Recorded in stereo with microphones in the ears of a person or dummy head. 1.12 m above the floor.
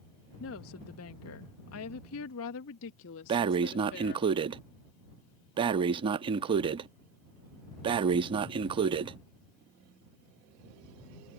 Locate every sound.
0.4 s a woman speaking: 60° left (ahead or behind); by 4.3 s 55° left (ahead or behind)
3.3 s breathing: 25° right (ahead or behind)